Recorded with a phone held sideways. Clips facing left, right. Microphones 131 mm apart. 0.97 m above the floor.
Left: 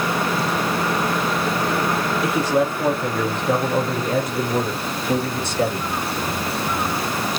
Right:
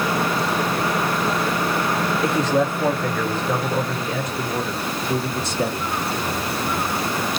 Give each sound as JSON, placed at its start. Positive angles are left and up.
{"t": 2.2, "sound": "a man speaking", "side_deg": 0, "distance_m": 1.0}